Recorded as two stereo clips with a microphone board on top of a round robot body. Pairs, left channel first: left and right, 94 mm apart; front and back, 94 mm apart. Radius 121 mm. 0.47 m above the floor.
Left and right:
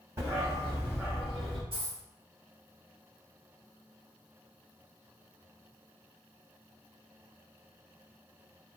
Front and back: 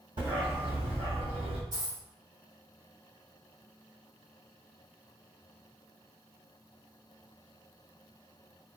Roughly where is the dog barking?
Behind right.